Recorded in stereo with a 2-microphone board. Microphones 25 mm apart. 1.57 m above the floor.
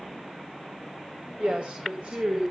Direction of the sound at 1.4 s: 55° right (ahead or behind).